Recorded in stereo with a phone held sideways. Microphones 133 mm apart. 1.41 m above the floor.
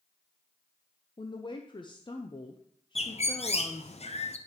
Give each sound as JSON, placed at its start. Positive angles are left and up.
{"t": 1.2, "sound": "a woman speaking", "side_deg": 40, "distance_m": 0.6}
{"t": 3.0, "sound": "a bird", "side_deg": 55, "distance_m": 0.6}